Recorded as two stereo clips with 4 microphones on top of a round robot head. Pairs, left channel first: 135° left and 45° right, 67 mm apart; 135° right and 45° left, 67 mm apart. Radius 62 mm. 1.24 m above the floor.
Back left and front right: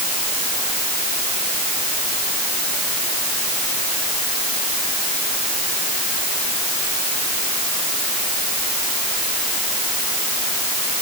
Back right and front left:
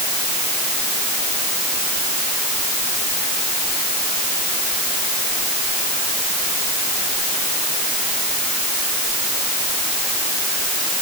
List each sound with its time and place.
Only background noise.